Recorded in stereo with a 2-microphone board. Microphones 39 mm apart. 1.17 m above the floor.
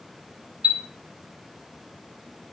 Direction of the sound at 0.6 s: 30° right (ahead or behind).